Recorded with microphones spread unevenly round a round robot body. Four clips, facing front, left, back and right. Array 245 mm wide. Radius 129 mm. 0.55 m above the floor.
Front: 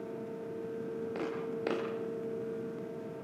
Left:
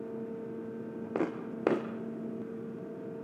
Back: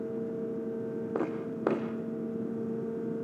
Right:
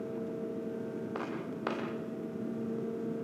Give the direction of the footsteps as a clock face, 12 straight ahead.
7 o'clock.